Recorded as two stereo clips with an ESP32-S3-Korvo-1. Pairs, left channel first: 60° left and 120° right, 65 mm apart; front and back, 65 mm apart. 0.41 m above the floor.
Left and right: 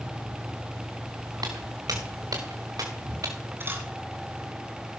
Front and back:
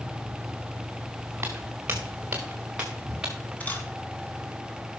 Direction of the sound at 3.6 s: 65° right.